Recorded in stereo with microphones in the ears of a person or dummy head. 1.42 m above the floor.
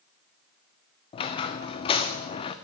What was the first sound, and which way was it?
A squeak, 20° left (ahead or behind).